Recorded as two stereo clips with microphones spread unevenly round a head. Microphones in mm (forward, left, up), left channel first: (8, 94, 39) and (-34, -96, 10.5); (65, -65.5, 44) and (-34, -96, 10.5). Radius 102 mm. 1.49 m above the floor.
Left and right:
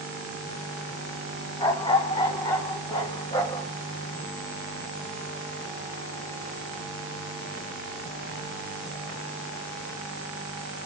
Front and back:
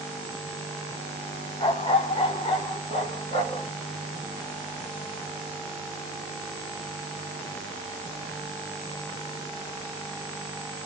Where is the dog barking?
15° left, 2 m; by 3.7 s 10° left, 4 m.